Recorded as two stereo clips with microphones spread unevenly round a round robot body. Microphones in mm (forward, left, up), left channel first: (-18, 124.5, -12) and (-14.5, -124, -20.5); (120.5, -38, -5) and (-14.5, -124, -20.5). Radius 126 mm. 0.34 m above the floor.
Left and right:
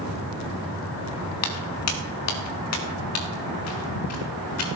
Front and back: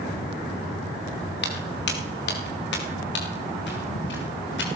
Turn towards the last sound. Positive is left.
turn(degrees=60)